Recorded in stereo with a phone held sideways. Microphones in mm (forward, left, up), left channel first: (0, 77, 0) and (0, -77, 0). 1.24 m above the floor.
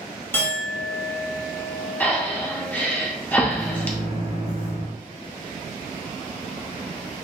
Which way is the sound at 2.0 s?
10° left (ahead or behind).